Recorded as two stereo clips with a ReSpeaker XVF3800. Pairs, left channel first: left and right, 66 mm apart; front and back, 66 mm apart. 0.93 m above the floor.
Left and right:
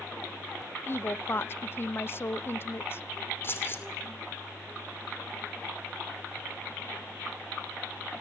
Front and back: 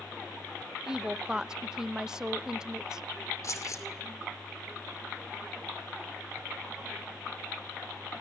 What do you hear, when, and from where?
0.9 s a woman speaking: 105° left, 0.6 m
3.4 s keys jangling: 35° left, 2.5 m